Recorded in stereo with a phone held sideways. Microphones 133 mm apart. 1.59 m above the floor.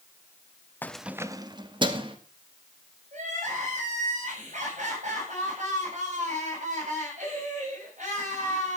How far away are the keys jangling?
About 0.6 m.